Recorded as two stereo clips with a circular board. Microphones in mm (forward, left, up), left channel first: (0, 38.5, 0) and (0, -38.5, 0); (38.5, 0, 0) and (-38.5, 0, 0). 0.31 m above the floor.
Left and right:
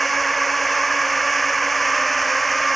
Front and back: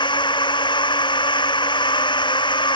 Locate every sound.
0.0 s a drone: straight ahead